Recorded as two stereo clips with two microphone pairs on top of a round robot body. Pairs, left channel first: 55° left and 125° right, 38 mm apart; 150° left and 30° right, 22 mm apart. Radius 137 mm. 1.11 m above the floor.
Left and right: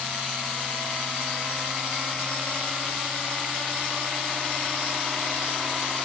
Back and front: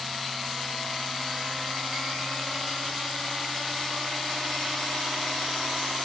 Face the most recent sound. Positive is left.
No sound to turn to.